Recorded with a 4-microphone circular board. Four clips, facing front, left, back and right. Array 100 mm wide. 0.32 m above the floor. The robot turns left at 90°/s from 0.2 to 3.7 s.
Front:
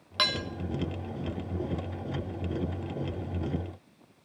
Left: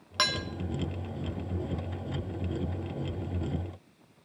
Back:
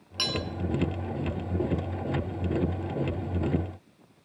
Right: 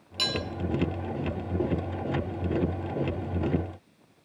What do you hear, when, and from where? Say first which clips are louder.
0.2 s dishes clattering: left 1 dB, front 1 dB; 60° left, 2.5 m; by 0.4 s 40° left, 2.5 m